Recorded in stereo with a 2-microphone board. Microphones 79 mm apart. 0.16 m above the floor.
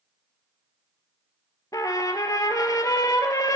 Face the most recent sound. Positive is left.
turn(degrees=50)  # may be behind; listen again after turning